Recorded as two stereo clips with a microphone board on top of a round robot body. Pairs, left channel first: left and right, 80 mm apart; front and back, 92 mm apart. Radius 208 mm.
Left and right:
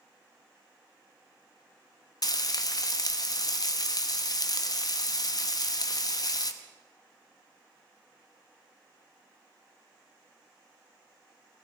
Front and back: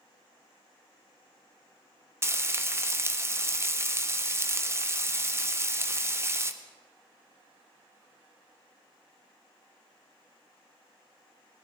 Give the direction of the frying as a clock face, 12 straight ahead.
8 o'clock.